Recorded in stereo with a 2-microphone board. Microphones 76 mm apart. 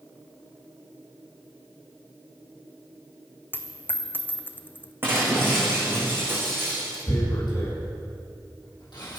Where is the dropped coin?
25° left (ahead or behind), 1.0 m.